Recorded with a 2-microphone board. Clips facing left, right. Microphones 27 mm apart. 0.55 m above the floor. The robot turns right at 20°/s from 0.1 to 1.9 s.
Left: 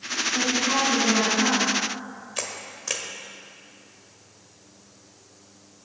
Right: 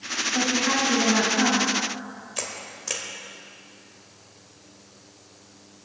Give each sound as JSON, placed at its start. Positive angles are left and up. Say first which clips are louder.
{"t": 0.3, "sound": "a woman speaking", "louder": "even", "side_deg": -70, "distance_m": 3.5}
{"t": 2.4, "sound": "a camera shutter", "louder": "left 1 dB", "side_deg": 15, "distance_m": 1.5}